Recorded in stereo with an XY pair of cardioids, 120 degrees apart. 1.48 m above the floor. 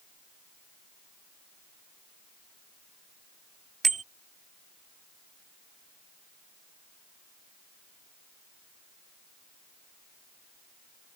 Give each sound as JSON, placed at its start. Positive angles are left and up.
{"t": 3.8, "sound": "a bicycle bell", "azimuth_deg": -30}